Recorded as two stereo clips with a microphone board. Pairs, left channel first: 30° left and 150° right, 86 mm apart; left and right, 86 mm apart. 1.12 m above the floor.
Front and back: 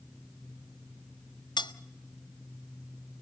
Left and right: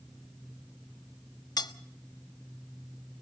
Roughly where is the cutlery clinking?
Ahead left.